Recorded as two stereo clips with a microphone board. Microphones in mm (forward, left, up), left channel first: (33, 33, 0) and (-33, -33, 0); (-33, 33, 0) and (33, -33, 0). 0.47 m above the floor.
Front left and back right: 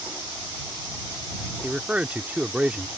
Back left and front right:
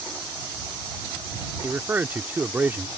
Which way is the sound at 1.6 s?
80° right.